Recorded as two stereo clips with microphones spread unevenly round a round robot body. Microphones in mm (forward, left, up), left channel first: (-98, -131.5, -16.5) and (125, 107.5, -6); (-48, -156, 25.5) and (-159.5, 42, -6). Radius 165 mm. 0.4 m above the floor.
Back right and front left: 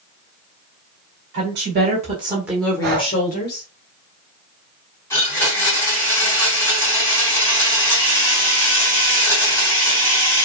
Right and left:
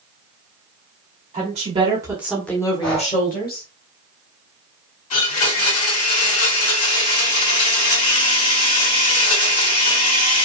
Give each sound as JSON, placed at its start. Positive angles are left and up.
{"t": 1.3, "sound": "a woman speaking", "azimuth_deg": 90, "distance_m": 1.7}
{"t": 2.8, "sound": "breathing", "azimuth_deg": -10, "distance_m": 1.0}
{"t": 5.1, "sound": "a blender", "azimuth_deg": -50, "distance_m": 2.0}